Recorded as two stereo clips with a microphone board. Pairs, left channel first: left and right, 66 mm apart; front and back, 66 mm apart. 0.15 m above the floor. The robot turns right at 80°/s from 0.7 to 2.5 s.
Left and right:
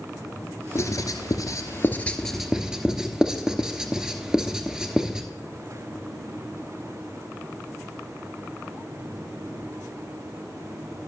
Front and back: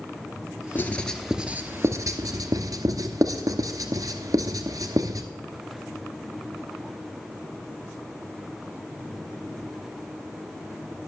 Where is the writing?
55° left, 0.9 m; by 5.3 s 165° right, 0.9 m.